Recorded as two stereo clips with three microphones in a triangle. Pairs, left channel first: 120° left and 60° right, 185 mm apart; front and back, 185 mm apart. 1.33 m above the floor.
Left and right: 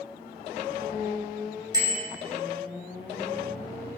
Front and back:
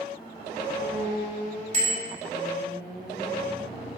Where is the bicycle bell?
130° right, 5 m.